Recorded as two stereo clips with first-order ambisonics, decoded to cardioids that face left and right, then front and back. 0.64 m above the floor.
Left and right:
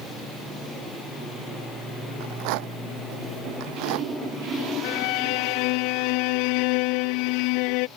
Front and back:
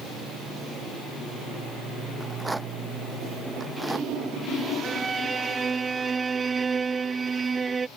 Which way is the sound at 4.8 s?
105° left.